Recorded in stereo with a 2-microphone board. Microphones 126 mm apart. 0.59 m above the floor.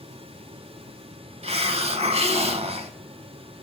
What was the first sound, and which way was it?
A hiss, 50° right (ahead or behind).